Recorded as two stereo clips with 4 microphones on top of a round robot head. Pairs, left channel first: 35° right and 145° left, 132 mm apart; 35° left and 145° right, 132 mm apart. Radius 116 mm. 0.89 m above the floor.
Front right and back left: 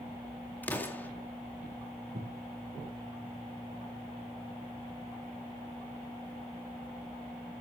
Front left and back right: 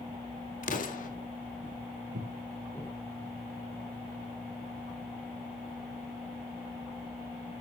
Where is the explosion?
40° left, 2.0 m.